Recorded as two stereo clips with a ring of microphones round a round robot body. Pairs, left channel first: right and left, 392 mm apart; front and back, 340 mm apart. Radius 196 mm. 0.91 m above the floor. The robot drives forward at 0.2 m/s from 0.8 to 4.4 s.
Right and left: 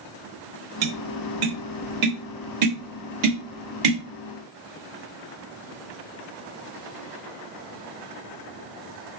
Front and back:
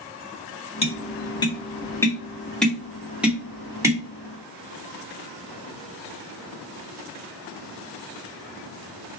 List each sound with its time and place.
0.8 s tapping: 75° left, 1.5 m; by 4.0 s 100° left, 1.4 m